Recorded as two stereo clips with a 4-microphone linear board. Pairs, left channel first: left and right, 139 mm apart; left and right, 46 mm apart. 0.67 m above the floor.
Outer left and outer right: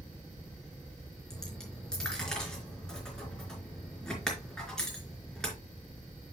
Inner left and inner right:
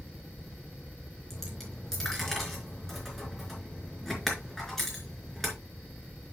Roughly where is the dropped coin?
Centre.